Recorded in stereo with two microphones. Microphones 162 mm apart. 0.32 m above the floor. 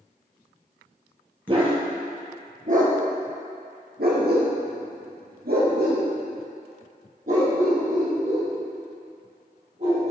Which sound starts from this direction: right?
A dog barking, at 1.5 s.